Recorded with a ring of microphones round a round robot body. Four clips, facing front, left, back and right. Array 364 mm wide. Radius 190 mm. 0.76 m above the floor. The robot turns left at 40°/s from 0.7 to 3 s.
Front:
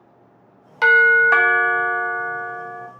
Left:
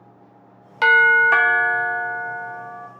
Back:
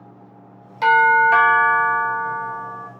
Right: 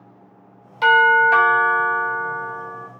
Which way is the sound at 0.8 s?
55° left.